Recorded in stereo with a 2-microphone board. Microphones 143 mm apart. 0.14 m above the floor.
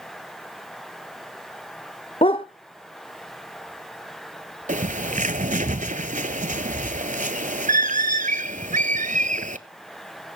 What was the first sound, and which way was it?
A dog barking, 40° left (ahead or behind).